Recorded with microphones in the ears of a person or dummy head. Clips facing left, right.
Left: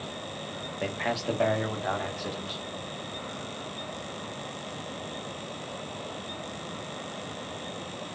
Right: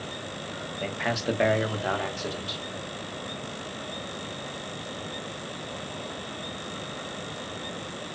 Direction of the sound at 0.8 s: 15° left (ahead or behind).